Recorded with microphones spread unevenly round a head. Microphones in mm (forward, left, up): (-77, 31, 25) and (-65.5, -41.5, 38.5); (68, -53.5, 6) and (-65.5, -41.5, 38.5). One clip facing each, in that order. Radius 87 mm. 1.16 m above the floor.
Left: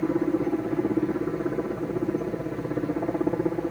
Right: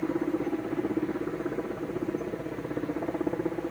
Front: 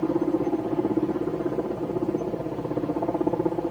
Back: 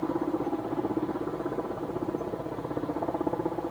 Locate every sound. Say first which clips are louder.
0.0 s a helicopter: left 4 dB, front 5 dB; 35° left